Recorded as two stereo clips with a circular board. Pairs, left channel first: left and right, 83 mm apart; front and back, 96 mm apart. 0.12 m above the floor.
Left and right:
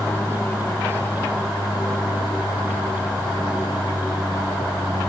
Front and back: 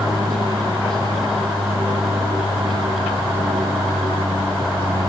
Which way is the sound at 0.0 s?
150° left.